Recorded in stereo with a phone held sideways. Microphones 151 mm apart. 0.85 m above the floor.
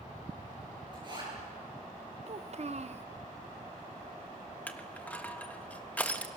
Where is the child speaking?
50° right (ahead or behind), 0.6 m.